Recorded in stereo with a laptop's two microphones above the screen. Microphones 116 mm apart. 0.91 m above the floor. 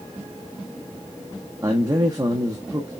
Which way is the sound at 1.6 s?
30° right (ahead or behind).